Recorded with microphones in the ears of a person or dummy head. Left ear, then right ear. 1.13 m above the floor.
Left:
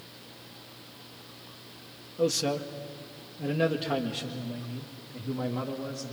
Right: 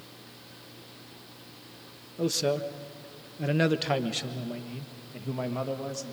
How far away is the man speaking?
About 0.9 m.